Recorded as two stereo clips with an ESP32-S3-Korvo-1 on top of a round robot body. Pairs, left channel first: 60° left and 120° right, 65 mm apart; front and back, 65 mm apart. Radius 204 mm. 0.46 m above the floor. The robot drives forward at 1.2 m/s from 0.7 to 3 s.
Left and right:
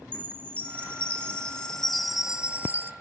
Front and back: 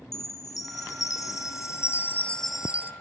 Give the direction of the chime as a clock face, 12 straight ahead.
12 o'clock.